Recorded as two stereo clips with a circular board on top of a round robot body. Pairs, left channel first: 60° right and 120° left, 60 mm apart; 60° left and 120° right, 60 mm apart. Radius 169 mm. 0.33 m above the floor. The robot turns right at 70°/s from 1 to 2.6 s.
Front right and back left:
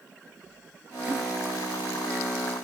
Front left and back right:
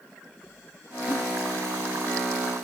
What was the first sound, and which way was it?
A giggle, 45° left.